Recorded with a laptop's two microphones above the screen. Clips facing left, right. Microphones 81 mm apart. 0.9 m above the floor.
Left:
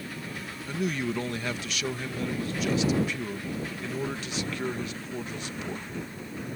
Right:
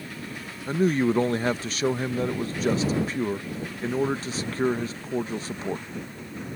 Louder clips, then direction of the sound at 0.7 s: Right 8 dB; 35° right (ahead or behind).